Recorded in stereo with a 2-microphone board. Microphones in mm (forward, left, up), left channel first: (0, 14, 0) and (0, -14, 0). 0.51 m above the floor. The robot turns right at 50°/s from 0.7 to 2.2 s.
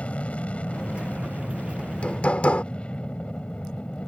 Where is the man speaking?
No man speaking in this recording.